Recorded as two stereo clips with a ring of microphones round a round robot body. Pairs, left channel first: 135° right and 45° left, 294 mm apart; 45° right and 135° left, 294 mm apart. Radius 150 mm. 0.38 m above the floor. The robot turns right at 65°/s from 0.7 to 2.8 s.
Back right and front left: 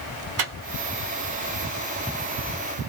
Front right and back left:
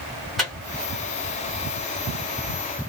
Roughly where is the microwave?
Ahead left.